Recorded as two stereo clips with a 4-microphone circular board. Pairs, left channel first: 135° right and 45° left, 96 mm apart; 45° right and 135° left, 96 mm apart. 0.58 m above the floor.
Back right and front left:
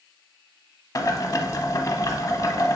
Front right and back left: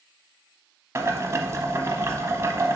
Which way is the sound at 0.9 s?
175° right.